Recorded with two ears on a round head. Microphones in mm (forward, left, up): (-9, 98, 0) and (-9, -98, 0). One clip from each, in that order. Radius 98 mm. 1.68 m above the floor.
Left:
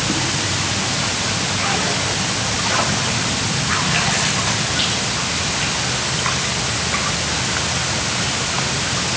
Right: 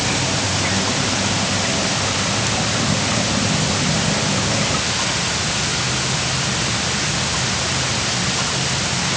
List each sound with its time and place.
Only background noise.